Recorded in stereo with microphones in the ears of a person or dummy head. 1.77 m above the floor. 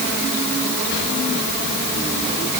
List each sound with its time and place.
Only background noise.